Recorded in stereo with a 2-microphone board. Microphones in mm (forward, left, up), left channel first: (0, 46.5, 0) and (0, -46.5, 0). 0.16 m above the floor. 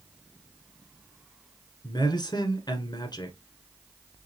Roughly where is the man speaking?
Left.